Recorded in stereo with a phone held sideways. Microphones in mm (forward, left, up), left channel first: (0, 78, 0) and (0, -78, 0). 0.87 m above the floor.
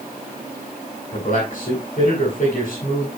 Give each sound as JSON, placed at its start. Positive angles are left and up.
{"t": 1.1, "sound": "a man speaking", "side_deg": 60, "distance_m": 7.0}